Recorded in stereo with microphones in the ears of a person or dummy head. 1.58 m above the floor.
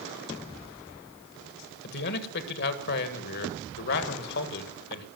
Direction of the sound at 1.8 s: 55° left (ahead or behind).